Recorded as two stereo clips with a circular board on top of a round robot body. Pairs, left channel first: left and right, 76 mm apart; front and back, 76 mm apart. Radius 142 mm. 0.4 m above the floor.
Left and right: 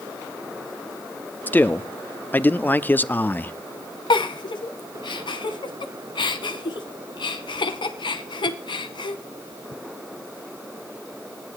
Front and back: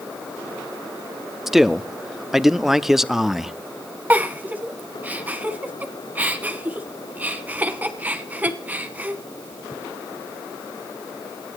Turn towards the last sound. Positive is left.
turn(degrees=110)